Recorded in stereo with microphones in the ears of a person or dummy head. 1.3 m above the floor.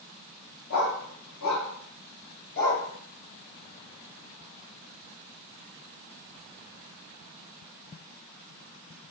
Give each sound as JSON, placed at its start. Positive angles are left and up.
{"t": 0.7, "sound": "a dog barking", "side_deg": 75, "distance_m": 3.5}